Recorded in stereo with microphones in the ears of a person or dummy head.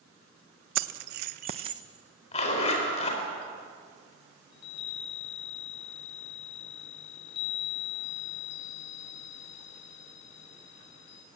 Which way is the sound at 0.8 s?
70° right (ahead or behind).